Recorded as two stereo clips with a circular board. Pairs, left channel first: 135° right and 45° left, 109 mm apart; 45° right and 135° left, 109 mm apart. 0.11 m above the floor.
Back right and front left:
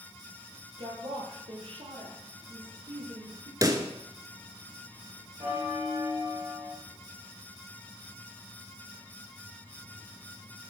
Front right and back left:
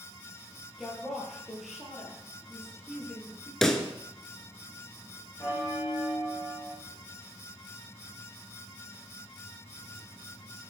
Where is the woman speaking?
45° left, 3 m.